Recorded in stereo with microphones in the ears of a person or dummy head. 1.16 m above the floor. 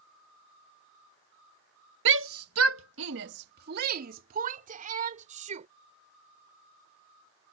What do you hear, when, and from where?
2.0 s a shout: 70° right (ahead or behind); by 5.7 s 40° right (ahead or behind)